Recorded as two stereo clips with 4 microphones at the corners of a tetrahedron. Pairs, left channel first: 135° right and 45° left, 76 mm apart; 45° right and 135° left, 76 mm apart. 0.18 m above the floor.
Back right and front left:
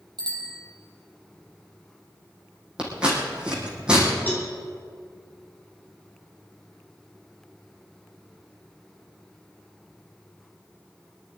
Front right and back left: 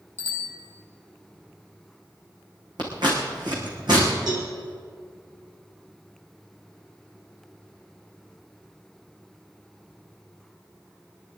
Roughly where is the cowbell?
Behind.